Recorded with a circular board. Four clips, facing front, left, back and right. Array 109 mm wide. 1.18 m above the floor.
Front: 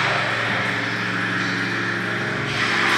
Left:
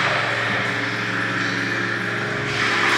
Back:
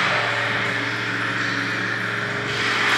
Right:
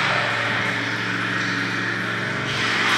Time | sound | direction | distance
0.0 | running water | 80° left | 4 m